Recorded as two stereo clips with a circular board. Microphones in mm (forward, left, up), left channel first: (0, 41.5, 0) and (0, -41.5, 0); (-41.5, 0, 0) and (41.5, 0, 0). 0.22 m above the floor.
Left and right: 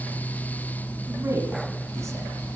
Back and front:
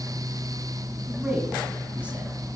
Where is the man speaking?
60° right, 1.6 m.